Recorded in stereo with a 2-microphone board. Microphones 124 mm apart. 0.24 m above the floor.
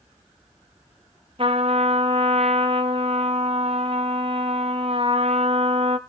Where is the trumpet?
50° right (ahead or behind), 1.6 m.